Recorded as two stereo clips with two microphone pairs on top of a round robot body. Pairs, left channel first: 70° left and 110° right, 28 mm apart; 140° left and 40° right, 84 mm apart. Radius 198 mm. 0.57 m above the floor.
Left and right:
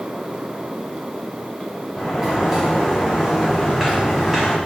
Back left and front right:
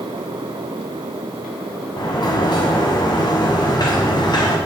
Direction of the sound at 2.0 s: 170° left.